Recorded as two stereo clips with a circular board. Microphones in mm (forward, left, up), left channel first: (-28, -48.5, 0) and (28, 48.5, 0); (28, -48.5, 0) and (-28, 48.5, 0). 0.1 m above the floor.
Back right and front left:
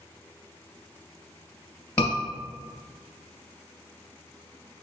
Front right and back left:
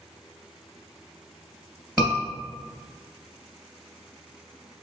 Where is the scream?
165° right, 1.9 m.